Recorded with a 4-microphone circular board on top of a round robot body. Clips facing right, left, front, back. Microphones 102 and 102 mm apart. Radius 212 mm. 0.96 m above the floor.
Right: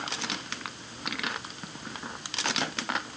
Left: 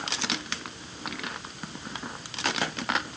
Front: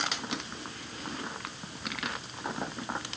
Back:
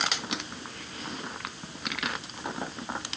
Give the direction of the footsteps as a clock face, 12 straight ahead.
No footsteps in this recording.